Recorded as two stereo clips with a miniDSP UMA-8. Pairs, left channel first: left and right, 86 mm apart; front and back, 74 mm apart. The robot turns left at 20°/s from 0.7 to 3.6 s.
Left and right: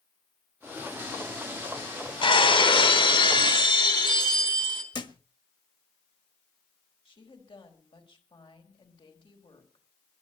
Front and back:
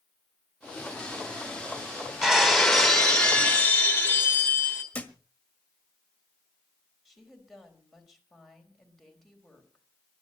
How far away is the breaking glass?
About 3 m.